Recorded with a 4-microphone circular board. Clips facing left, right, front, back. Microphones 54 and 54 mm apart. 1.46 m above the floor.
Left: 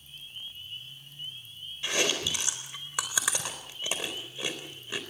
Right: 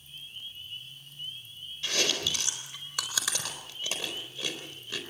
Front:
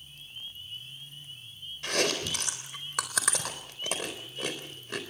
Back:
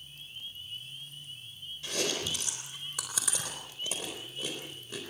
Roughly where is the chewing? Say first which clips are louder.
Left 1 dB, front 4 dB; ahead.